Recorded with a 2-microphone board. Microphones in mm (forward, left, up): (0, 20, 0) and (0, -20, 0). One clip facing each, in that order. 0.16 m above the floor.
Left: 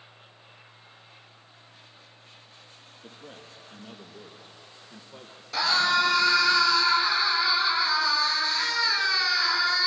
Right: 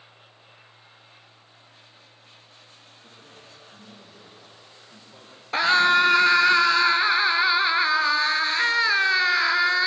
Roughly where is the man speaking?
Left.